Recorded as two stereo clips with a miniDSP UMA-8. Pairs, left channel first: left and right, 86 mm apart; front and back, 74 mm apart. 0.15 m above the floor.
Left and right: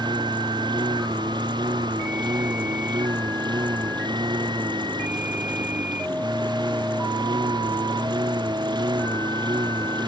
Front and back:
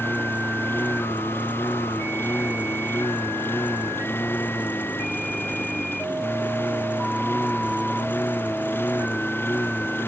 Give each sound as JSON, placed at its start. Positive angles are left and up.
{"t": 0.0, "sound": "a lawn mower", "azimuth_deg": -60}